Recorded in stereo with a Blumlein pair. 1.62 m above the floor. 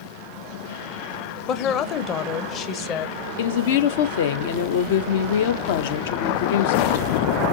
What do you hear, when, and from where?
1.5 s a woman speaking: 30° left, 1.0 m
3.4 s a woman speaking: 55° left, 0.9 m